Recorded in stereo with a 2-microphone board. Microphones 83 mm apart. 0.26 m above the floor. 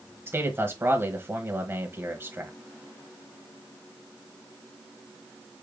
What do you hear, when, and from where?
0.3 s a man speaking: 30° right (ahead or behind), 1.1 m